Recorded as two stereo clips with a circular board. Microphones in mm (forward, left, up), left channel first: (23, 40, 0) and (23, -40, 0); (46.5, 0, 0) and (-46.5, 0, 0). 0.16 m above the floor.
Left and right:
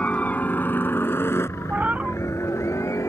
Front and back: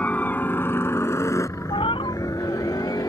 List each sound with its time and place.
0.0 s a helicopter: 45° left; by 3.1 s 40° left
1.7 s a cat meowing: 15° right